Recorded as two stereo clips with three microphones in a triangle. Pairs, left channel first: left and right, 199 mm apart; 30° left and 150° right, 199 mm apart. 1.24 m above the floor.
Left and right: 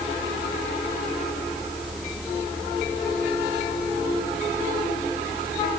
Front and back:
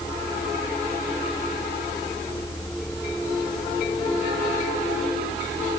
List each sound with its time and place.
Only background noise.